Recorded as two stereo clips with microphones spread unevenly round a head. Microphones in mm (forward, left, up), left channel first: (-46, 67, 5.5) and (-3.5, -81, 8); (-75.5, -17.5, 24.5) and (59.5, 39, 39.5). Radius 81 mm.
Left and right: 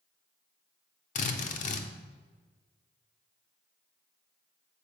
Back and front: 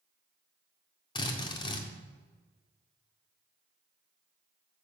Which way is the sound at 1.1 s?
140° left.